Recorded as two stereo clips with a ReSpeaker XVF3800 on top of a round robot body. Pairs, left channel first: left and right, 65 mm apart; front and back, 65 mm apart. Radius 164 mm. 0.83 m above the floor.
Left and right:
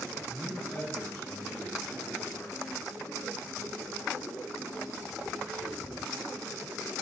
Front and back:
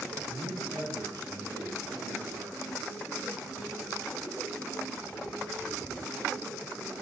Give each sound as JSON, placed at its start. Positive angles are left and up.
{"t": 0.3, "sound": "a man speaking", "azimuth_deg": 175, "distance_m": 10.0}